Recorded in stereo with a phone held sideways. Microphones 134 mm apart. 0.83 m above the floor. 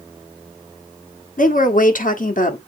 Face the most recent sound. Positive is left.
turn(degrees=70)  # may be behind; listen again after turning